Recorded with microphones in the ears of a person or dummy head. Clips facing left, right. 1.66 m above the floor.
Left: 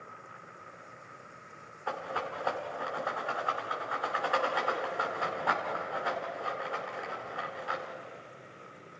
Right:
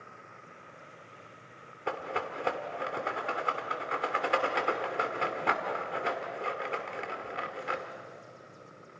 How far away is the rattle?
About 2 m.